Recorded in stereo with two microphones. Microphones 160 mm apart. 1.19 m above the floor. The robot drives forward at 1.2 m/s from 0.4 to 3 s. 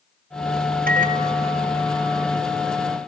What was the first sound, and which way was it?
A microwave, 65° right (ahead or behind).